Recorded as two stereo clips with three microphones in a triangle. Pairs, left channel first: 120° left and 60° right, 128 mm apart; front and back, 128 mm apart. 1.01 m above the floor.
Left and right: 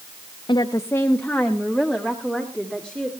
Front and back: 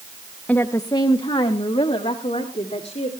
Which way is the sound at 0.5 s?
75° left.